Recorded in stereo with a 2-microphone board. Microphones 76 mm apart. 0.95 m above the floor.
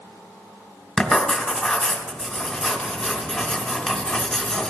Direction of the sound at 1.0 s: 15° left (ahead or behind).